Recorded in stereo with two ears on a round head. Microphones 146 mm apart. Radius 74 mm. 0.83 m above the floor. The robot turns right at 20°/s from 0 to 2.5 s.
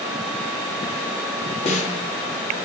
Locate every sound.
1.6 s a snare drum: 40° left (ahead or behind), 1.5 m; by 2.1 s 45° left (ahead or behind), 1.5 m